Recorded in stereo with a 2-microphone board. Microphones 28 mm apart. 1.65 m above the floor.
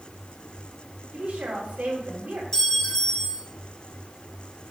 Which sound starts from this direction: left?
A clink, at 2.5 s.